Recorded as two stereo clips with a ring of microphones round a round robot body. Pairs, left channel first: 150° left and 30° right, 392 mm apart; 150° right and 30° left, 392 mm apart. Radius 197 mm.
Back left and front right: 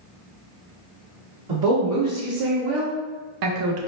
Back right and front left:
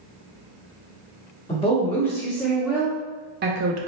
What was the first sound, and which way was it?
A woman speaking, 70° right.